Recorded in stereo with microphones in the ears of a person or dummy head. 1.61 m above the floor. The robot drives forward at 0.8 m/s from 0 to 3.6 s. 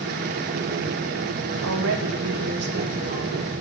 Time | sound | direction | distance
1.6 | a woman speaking | 85° right | 1.4 m